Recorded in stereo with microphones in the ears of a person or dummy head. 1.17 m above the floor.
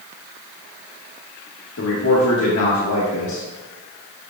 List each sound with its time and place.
1.8 s a man speaking: 75° left (ahead or behind), 1.4 m